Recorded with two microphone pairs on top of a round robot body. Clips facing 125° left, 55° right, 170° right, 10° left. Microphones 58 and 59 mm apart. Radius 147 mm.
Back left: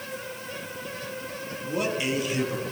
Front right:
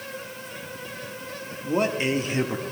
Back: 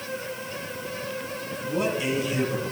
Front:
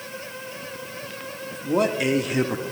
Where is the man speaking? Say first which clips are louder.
Front right 4 dB, front 5 dB; 5° right, 1.8 m.